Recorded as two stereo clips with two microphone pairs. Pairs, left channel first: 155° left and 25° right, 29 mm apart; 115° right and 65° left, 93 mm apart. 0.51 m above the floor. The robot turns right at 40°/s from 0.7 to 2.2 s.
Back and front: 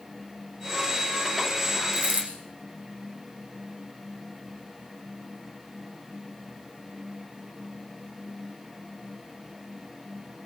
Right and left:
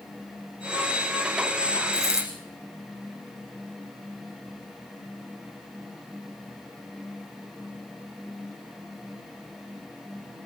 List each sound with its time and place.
1.9 s a dropped coin: 65° right, 6 m; by 2.3 s 55° right, 6 m